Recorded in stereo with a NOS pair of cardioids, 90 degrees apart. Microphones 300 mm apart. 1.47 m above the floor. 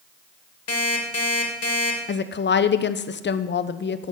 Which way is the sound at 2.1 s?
40° left.